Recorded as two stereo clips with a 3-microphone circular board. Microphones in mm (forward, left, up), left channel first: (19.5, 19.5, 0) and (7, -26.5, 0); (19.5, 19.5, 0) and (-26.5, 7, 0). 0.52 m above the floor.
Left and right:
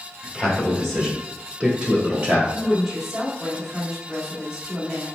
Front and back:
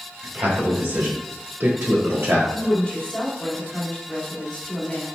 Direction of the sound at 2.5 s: 25° right.